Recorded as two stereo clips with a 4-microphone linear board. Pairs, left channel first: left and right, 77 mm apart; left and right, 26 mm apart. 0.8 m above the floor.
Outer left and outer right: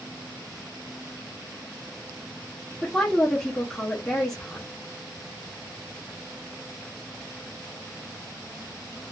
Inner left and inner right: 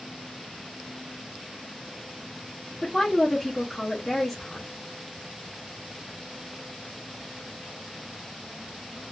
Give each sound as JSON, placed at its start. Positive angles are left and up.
{"t": 2.8, "sound": "a woman speaking", "side_deg": 10, "distance_m": 0.7}